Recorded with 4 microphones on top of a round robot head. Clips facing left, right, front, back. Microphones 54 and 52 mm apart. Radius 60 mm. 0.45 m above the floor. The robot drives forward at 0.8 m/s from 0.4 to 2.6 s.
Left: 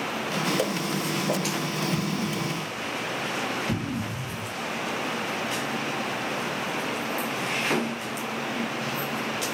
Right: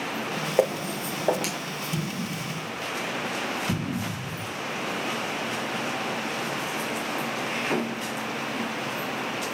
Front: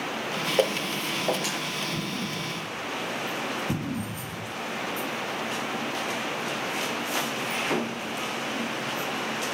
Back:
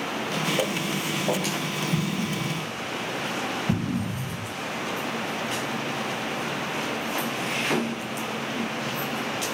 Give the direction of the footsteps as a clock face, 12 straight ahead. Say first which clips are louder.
Right 2 dB, front 1 dB; 2 o'clock.